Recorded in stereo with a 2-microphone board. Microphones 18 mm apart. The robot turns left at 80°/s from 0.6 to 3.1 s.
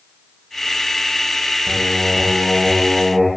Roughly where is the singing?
Ahead right.